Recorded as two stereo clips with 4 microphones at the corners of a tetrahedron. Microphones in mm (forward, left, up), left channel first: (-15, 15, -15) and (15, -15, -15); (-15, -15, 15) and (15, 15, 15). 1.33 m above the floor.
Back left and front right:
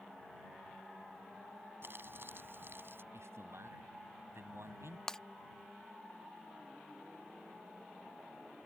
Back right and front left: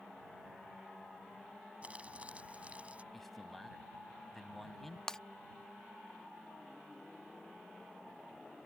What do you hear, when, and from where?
1.8 s crumpling: 15° right
3.1 s a man speaking: 50° right
5.1 s breaking glass: straight behind